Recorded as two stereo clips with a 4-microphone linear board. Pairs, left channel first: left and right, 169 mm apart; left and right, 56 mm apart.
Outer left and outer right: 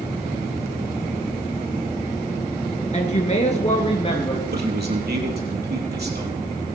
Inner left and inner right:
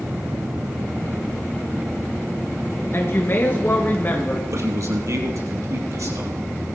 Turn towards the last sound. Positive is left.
turn(degrees=-75)  # may be behind; listen again after turning